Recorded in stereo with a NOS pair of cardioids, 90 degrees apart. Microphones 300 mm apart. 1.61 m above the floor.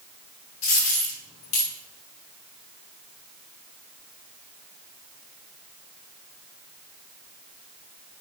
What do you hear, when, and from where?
0.6 s a dropped coin: 65° left, 4 m